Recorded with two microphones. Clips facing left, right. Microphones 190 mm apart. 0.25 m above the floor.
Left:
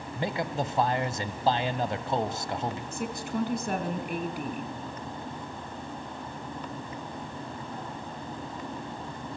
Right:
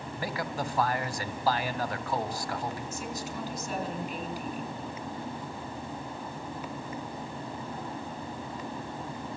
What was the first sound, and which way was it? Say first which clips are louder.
A man speaking: left 4 dB; 20° left (ahead or behind).